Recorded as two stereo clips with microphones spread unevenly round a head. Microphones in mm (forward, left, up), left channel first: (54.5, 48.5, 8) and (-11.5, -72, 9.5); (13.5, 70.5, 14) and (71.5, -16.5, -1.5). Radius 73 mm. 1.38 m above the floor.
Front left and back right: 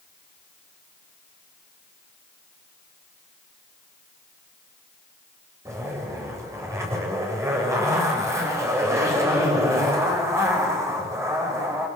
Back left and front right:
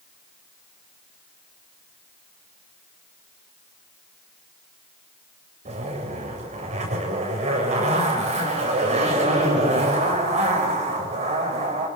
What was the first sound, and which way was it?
A zipper, 50° right.